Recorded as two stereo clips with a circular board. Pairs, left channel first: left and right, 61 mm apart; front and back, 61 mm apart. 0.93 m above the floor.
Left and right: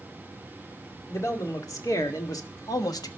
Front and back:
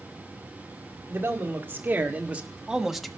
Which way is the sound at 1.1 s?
125° left.